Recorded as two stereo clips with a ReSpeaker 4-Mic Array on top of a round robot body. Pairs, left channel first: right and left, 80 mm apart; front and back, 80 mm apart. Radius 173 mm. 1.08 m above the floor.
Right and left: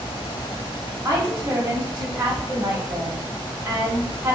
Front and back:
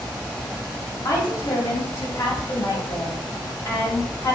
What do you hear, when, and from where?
1.1 s a woman speaking: 50° left, 1.7 m